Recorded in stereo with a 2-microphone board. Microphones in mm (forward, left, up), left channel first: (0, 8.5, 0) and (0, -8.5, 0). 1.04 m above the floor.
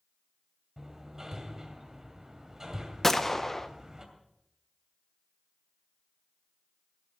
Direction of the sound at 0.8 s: 30° right (ahead or behind).